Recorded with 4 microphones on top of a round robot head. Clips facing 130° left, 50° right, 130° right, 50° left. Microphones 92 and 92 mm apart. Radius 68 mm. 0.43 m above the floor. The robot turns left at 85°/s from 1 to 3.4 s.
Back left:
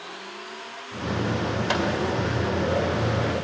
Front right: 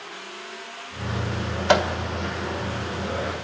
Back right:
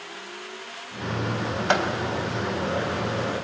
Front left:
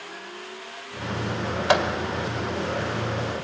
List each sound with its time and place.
1.7 s a microwave: 30° right, 1.9 m; by 1.9 s 50° right, 1.9 m